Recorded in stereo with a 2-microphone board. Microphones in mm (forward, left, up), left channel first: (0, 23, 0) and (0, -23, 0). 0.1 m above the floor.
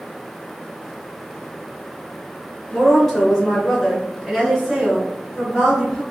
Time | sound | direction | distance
2.7 | a woman speaking | 10° left (ahead or behind) | 1.3 m